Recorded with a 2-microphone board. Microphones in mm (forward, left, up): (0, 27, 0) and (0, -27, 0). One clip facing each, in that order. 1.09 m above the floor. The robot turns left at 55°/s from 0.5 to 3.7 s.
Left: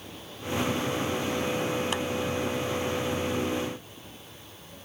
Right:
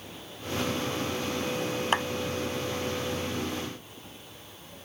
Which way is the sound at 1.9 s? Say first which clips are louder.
Right 3 dB; 40° right (ahead or behind).